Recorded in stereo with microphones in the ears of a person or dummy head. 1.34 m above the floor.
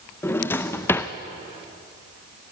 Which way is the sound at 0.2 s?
15° left (ahead or behind).